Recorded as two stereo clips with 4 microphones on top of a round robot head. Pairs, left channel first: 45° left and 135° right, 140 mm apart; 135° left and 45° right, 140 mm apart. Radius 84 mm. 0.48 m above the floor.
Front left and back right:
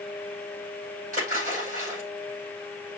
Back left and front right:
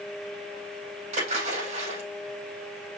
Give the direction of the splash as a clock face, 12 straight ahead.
3 o'clock.